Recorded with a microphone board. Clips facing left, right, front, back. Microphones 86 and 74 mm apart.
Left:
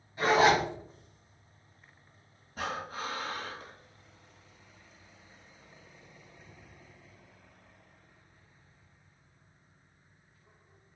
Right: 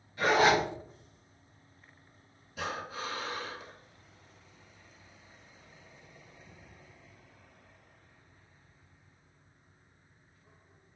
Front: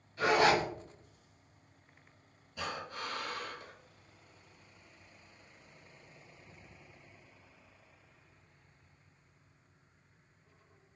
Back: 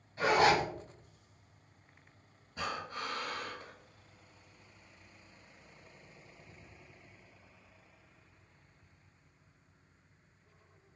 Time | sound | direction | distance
0.2 | a zipper | 140° left | 1.9 m
2.6 | breathing | 135° left | 1.0 m